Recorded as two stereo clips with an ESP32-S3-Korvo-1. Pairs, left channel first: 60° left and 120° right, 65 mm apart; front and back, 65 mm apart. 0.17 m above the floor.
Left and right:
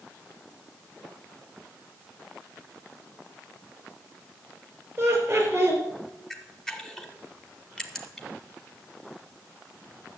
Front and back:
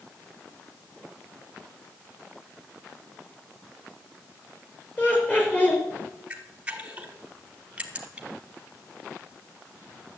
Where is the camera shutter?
135° left, 1.5 m.